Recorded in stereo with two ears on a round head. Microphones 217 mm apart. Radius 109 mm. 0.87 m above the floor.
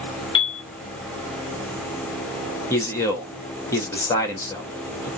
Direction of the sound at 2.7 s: 15° left (ahead or behind).